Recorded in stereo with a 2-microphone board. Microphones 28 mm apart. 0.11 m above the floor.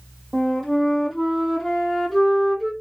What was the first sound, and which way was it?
A flute, centre (ahead or behind).